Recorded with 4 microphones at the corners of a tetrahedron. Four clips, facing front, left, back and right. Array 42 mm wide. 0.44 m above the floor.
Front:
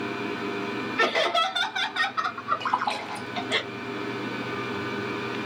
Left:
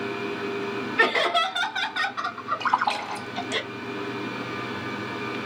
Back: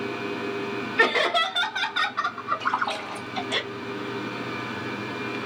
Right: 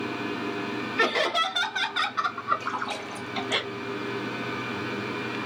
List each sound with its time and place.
1.0 s laughter: 125° left, 1.4 m; by 3.6 s 65° right, 1.5 m
2.6 s a splash: 80° left, 1.9 m